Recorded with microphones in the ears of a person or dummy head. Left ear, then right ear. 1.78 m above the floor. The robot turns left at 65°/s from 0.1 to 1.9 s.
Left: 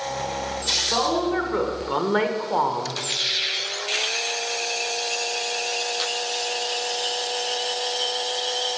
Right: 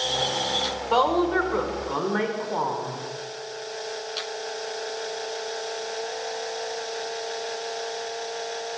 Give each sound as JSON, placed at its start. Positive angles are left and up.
{"t": 0.9, "sound": "a woman speaking", "azimuth_deg": -140, "distance_m": 1.2}